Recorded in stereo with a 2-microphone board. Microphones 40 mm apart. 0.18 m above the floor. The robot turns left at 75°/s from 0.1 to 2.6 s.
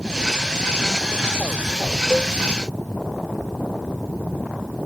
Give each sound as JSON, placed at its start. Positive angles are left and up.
{"t": 2.1, "sound": "a cowbell", "side_deg": -10}